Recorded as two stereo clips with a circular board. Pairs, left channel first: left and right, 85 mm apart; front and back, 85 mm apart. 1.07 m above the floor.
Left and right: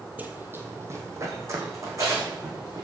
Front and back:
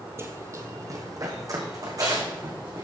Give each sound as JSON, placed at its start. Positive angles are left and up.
{"t": 0.2, "sound": "running footsteps", "azimuth_deg": -145, "distance_m": 1.3}